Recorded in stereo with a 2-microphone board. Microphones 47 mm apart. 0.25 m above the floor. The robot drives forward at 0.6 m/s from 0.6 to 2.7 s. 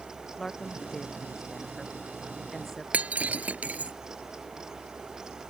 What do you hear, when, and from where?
0.4 s a woman speaking: 10° left (ahead or behind); by 2.8 s 5° left (ahead or behind)
2.9 s breaking glass: 30° right (ahead or behind)